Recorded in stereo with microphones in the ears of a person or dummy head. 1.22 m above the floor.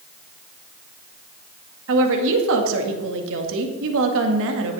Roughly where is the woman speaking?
Right.